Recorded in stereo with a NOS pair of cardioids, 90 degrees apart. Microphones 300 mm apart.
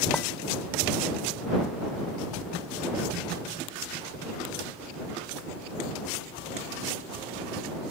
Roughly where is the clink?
Ahead.